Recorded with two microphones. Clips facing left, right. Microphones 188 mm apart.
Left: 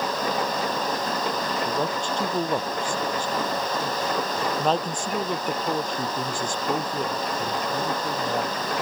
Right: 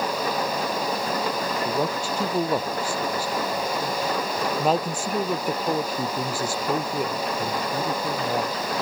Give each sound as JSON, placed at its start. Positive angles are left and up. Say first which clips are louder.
{"t": 1.6, "sound": "a man speaking", "louder": "right 1 dB", "side_deg": -10}